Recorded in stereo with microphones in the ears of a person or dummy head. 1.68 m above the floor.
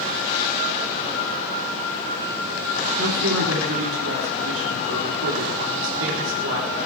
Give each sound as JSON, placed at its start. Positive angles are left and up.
{"t": 3.0, "sound": "a woman speaking", "side_deg": -80, "distance_m": 3.5}